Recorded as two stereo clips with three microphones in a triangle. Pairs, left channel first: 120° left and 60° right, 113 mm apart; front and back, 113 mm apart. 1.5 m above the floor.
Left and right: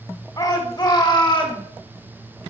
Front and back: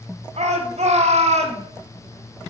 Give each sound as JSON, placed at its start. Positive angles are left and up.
{"t": 0.4, "sound": "a shout", "azimuth_deg": 170, "distance_m": 4.0}